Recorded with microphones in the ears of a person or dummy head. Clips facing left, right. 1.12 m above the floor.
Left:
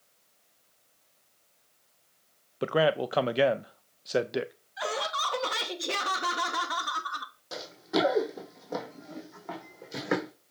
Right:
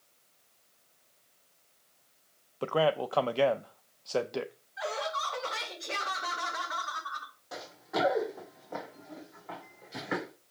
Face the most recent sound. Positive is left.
turn(degrees=70)  # may be behind; listen again after turning